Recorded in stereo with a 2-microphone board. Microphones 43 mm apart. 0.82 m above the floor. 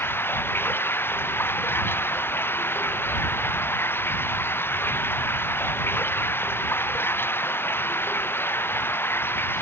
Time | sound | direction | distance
0.0 | running water | 65° left (ahead or behind) | ?